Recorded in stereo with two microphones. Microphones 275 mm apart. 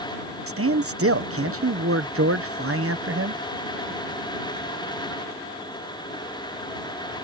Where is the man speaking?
55° right (ahead or behind).